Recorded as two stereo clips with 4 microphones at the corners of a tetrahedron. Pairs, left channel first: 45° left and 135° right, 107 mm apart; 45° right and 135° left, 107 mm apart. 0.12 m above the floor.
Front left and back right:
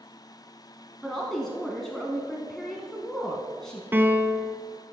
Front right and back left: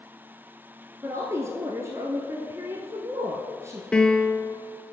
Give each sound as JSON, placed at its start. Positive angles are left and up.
{"t": 1.0, "sound": "a woman speaking", "azimuth_deg": 125, "distance_m": 1.1}
{"t": 3.9, "sound": "a piano", "azimuth_deg": -110, "distance_m": 0.7}